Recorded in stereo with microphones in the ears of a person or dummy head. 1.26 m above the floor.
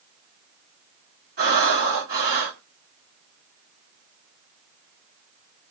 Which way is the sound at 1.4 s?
50° right (ahead or behind).